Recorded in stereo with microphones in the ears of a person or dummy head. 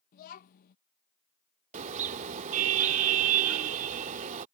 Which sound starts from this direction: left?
A child speaking, at 0.1 s.